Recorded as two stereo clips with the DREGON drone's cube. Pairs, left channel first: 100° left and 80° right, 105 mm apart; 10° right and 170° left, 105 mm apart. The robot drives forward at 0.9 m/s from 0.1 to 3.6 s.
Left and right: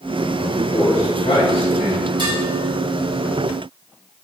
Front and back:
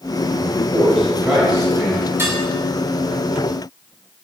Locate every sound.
0.4 s a man speaking: 75° left, 4 m; by 2.1 s 95° left, 4 m
2.2 s dishes clattering: 125° right, 2.5 m